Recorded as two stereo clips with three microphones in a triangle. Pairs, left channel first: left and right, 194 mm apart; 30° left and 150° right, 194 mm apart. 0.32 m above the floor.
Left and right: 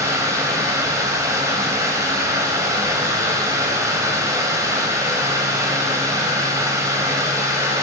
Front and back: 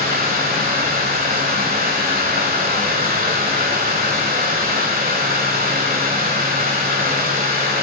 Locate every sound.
0.0 s running water: 160° right, 1.3 m